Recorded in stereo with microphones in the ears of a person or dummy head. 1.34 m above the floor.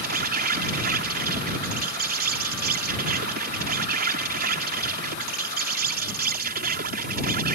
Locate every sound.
0.0 s an insect: 55° right (ahead or behind)